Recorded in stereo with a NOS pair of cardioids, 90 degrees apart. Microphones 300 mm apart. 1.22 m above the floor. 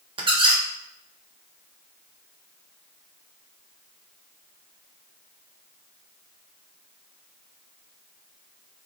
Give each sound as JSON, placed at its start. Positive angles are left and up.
{"t": 0.2, "sound": "a squeak", "azimuth_deg": -15, "distance_m": 0.8}